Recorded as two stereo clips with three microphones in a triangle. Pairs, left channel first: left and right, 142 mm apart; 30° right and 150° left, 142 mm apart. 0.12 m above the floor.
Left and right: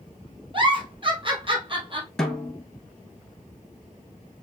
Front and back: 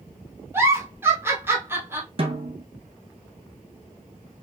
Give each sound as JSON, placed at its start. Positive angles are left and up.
{"t": 0.5, "sound": "a giggle", "azimuth_deg": -140, "distance_m": 1.7}
{"t": 2.2, "sound": "a snare drum", "azimuth_deg": 175, "distance_m": 1.2}